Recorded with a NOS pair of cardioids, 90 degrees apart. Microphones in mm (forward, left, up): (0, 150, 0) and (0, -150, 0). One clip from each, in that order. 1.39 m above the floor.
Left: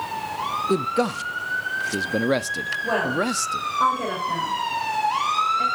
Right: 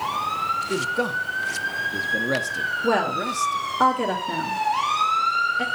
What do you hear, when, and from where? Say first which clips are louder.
0.7 s a man speaking: left 1 dB; 40° left, 0.7 m
2.8 s a woman speaking: even; 55° right, 3 m